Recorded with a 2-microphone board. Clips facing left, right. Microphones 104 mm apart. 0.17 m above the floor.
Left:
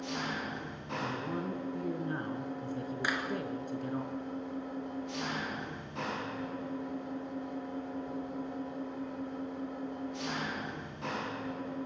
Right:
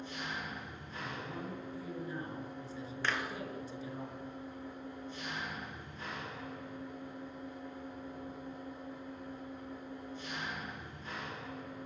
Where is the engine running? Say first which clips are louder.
Left 5 dB; 80° left, 4.5 m.